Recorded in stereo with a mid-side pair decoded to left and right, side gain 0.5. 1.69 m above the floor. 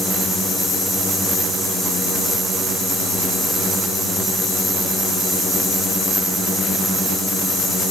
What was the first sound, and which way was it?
Only background noise.